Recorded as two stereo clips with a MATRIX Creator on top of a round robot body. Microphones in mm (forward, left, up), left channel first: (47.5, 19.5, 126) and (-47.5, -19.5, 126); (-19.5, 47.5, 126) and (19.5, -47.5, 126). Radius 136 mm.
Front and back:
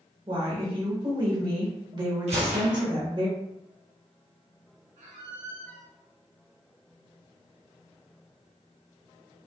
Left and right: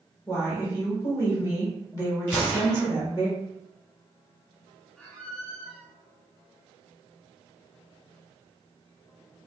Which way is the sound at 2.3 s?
175° right.